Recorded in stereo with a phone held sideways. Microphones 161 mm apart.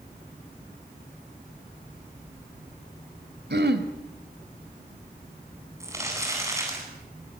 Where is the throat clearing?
75° right (ahead or behind), 2 m.